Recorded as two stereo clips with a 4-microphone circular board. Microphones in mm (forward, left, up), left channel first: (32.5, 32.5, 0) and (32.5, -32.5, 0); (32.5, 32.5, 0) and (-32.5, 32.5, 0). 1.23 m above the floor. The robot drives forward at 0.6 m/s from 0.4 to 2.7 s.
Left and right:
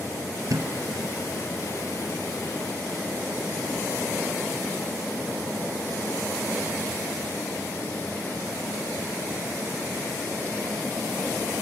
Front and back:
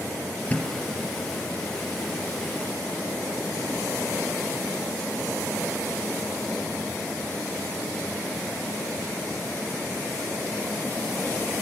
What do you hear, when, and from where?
0.5 s a thud: 65° right, 3 m; by 0.7 s 70° right, 3 m